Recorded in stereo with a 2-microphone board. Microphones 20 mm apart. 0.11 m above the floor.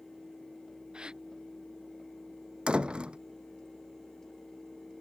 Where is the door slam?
50° right (ahead or behind).